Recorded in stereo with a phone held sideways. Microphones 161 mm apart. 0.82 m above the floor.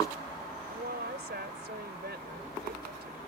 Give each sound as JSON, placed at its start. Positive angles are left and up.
{"t": 0.7, "sound": "a woman speaking", "side_deg": -75}